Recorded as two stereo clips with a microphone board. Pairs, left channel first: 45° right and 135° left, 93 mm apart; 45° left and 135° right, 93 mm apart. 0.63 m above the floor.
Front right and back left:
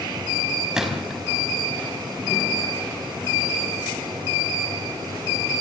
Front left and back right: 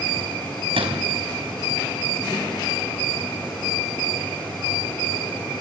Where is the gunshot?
140° right, 4.5 m.